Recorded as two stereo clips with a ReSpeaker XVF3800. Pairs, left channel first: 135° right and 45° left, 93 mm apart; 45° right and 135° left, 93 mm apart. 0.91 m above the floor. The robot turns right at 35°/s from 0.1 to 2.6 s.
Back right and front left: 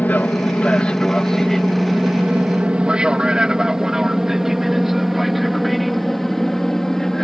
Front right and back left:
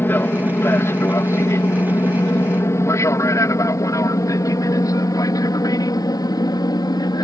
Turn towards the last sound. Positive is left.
turn(degrees=-50)